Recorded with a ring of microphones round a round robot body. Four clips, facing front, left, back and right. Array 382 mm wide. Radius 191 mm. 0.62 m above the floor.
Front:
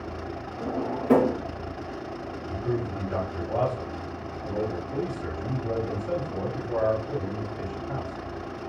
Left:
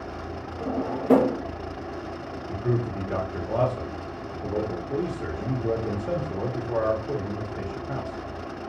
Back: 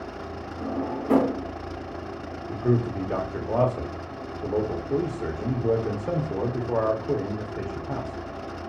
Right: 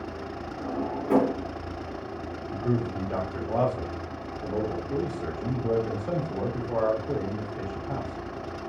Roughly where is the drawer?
Left.